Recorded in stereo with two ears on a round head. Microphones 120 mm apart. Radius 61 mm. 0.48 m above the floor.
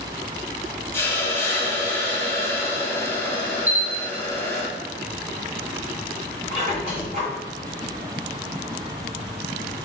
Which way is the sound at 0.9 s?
20° left (ahead or behind).